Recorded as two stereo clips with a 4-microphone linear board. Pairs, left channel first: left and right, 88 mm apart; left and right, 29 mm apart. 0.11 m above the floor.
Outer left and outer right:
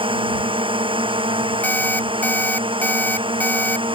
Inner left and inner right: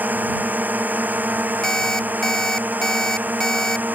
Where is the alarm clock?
20° left (ahead or behind).